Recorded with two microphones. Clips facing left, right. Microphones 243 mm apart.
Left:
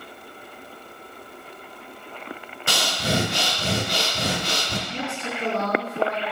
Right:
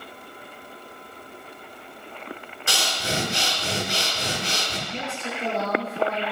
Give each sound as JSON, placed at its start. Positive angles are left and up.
{"t": 2.7, "sound": "breathing", "side_deg": 70, "distance_m": 1.0}
{"t": 4.9, "sound": "a woman speaking", "side_deg": 75, "distance_m": 4.5}